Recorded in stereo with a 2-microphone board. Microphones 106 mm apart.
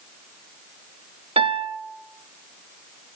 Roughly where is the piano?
Right.